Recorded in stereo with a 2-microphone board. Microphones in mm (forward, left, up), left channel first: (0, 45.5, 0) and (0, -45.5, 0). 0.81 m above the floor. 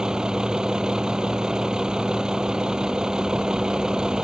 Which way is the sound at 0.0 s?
10° right (ahead or behind).